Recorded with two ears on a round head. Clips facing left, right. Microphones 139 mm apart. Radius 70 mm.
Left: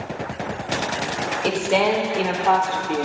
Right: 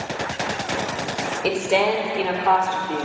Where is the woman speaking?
5° right (ahead or behind), 1.6 m; by 3.0 s 20° left (ahead or behind), 1.0 m.